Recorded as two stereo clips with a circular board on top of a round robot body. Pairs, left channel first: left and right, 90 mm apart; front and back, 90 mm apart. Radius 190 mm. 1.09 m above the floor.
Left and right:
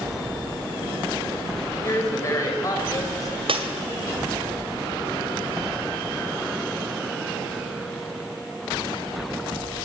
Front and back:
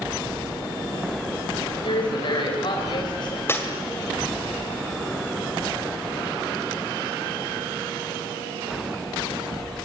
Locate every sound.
1.8 s a woman speaking: 30° left, 5.5 m; by 3.4 s 40° left, 6 m
3.5 s breaking glass: 65° right, 2.5 m